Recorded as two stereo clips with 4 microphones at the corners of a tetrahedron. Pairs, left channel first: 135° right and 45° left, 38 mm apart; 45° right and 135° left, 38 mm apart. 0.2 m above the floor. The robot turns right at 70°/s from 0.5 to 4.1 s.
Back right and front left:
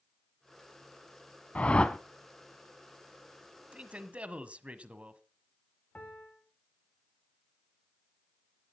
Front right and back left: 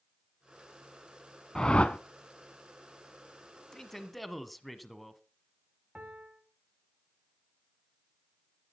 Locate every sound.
1.6 s a whoosh: 105° right, 1.2 m; by 2.0 s 75° right, 1.2 m
3.7 s a man speaking: 15° left, 1.5 m; by 5.2 s 45° left, 1.5 m
6.0 s a piano: 175° right, 3 m